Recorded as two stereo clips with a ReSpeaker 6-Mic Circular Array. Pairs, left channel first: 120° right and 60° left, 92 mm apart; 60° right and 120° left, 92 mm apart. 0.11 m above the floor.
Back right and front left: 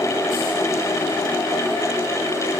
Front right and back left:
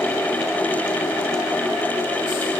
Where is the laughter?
No laughter in this recording.